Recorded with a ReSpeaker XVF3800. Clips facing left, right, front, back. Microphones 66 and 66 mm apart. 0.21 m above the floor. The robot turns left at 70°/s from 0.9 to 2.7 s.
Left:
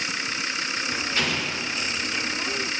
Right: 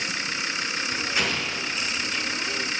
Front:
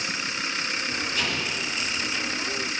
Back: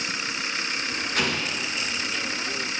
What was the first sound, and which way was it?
An explosion, 165° right.